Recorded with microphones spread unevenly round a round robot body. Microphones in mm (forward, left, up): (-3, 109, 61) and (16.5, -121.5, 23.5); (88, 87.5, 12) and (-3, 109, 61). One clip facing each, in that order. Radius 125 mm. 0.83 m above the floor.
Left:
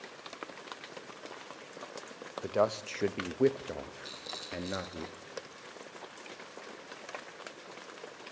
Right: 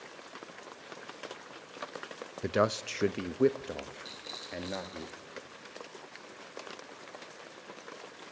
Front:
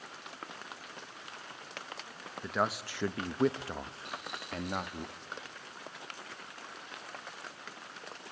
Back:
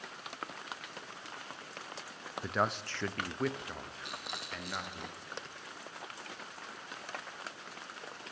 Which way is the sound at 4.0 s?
175° left.